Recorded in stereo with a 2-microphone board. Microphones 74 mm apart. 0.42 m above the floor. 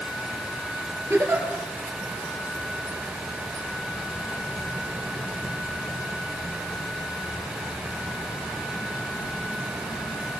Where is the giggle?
35° right (ahead or behind), 3 m.